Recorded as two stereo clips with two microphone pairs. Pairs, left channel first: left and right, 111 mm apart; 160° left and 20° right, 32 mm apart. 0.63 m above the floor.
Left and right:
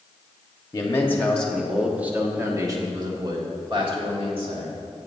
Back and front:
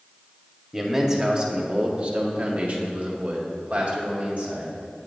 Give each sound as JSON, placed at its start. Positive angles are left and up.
{"t": 0.7, "sound": "a man speaking", "azimuth_deg": 45, "distance_m": 1.0}